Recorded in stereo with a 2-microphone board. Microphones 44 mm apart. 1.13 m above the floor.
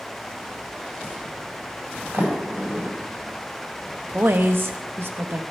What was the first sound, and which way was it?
A sliding door, 75° right (ahead or behind).